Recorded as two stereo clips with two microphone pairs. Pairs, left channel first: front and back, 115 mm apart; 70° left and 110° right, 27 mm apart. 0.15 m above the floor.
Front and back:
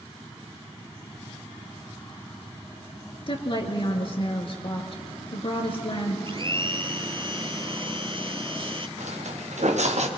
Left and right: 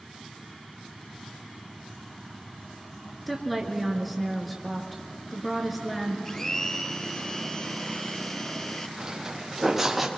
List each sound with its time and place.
3.3 s a woman speaking: 15° right, 2.5 m
6.2 s a blender: 145° left, 0.6 m
9.0 s footsteps: 170° right, 2 m; by 10.1 s 165° left, 1.9 m